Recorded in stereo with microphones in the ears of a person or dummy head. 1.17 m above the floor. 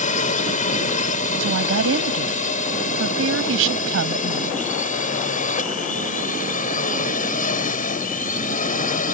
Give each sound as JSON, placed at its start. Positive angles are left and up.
{"t": 0.0, "sound": "a drone", "side_deg": 40}
{"t": 1.4, "sound": "a woman speaking", "side_deg": -85}